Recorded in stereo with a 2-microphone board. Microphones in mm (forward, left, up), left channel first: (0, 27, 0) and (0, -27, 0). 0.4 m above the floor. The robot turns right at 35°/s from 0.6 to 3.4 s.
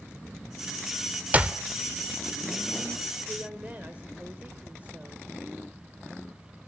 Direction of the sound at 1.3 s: 25° right (ahead or behind).